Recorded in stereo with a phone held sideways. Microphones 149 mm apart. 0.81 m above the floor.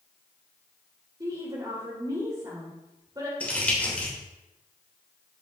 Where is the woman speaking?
25° right (ahead or behind), 2.5 m.